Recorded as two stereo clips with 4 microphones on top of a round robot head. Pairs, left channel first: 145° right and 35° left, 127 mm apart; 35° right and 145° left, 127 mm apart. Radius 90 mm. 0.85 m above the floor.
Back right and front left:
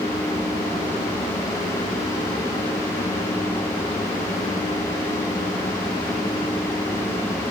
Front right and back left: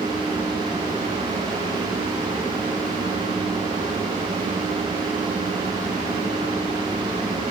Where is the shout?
I don't hear a shout.